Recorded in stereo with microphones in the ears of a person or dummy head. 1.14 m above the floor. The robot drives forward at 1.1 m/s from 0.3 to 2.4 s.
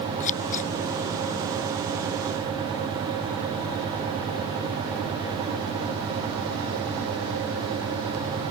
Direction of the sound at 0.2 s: 45° left (ahead or behind).